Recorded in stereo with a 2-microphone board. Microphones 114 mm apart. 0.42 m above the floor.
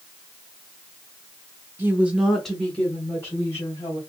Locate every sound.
1.8 s a woman speaking: 20° right (ahead or behind), 0.9 m; by 4.0 s 25° left (ahead or behind), 1.8 m